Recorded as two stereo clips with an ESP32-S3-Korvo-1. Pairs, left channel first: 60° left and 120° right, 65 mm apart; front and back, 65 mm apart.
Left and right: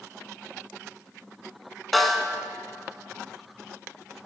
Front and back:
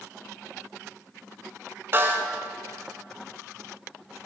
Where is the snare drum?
145° left, 0.5 m.